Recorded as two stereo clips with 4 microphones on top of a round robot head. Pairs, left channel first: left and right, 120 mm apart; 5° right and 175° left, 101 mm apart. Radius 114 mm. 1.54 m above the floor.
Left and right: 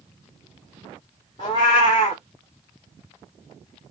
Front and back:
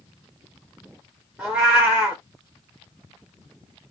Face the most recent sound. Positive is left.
turn(degrees=95)